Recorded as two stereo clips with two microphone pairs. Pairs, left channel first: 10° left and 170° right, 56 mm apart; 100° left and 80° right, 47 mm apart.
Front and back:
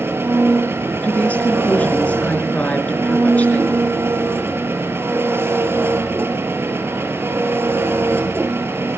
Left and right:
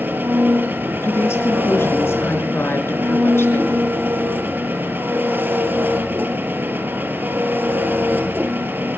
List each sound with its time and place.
0.0 s an engine running: 125° right, 2 m
1.0 s a woman speaking: 70° left, 4.5 m